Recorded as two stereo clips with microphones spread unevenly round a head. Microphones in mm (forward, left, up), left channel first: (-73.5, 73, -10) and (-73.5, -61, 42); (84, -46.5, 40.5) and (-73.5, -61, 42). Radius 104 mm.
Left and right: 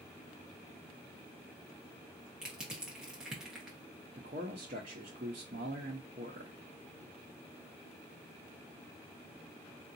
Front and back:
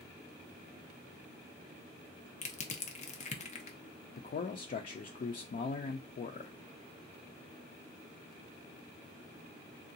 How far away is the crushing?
About 0.7 m.